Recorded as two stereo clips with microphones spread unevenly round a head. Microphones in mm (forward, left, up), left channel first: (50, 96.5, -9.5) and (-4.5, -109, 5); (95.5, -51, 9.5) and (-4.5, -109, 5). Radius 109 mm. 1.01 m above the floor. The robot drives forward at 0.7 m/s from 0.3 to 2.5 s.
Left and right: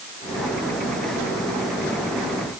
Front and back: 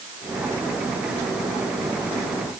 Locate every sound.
Only background noise.